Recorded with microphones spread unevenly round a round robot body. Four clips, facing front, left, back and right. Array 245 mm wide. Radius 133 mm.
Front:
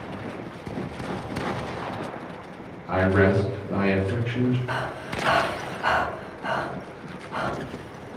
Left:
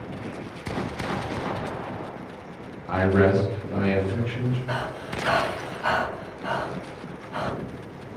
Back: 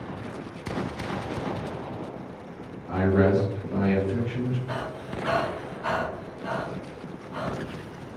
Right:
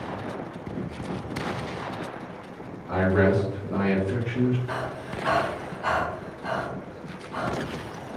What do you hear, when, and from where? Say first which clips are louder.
2.9 s a man speaking: left 2 dB, front 1 dB; 165° left, 0.7 m; by 4.6 s 60° right, 0.9 m
4.7 s breathing: left 1 dB, front 3 dB; 15° left, 1.5 m